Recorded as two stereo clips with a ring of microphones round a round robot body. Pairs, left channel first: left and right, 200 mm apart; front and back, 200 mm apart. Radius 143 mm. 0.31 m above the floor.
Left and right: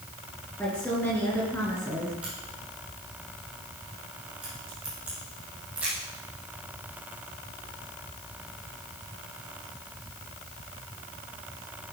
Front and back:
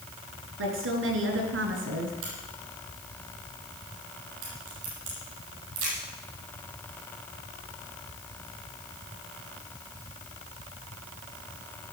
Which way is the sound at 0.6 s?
175° left.